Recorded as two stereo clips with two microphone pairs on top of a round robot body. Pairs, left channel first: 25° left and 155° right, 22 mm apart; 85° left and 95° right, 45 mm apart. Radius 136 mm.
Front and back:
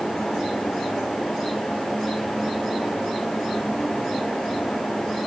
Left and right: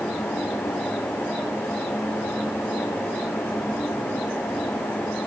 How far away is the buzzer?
I don't hear a buzzer.